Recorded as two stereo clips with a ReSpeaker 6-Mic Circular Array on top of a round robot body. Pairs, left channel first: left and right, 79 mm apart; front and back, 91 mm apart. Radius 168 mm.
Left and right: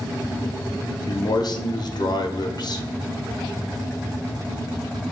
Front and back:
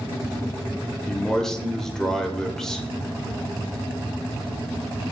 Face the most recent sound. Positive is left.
turn(degrees=85)